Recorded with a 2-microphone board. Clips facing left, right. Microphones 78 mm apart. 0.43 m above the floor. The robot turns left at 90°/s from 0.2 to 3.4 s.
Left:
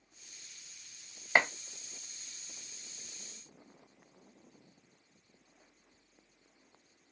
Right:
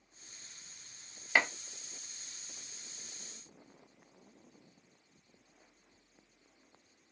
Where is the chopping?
25° left (ahead or behind), 0.5 m; by 1.5 s 15° left (ahead or behind), 0.5 m.